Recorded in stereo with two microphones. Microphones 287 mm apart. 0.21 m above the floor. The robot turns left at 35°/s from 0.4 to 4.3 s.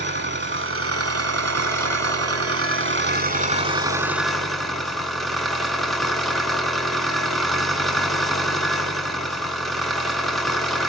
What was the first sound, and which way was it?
An engine running, 45° right.